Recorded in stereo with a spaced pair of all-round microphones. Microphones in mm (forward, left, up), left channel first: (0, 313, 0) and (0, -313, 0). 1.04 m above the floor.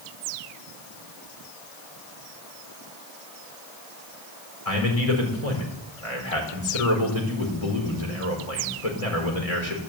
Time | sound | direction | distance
4.7 | a man speaking | 60° left (ahead or behind) | 4.5 m